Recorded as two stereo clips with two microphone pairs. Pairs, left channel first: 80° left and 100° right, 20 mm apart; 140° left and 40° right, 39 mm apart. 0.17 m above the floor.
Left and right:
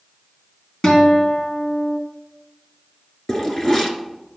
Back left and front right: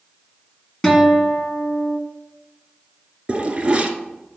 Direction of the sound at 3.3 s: 20° left.